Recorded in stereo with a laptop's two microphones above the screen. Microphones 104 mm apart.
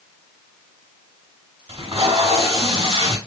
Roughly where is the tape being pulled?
Right.